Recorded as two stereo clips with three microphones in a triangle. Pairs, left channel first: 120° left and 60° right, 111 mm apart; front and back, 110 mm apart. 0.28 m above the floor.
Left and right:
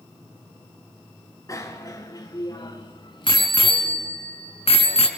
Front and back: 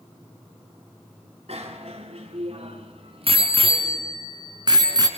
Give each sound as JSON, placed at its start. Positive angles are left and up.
{"t": 1.5, "sound": "a bicycle bell", "azimuth_deg": 175, "distance_m": 2.5}